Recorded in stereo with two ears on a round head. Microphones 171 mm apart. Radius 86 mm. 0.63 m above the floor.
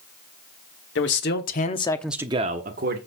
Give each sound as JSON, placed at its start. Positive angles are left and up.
{"t": 0.9, "sound": "a man speaking", "side_deg": 65, "distance_m": 1.6}